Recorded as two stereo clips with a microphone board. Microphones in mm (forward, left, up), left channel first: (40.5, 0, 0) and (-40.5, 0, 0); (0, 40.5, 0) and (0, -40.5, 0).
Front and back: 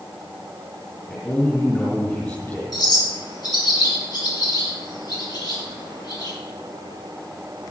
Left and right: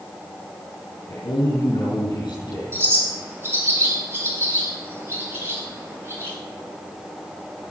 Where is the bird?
30° right, 5 m.